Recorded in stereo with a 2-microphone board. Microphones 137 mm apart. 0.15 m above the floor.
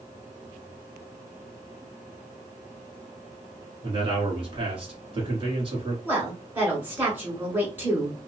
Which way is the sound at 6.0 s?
15° right (ahead or behind).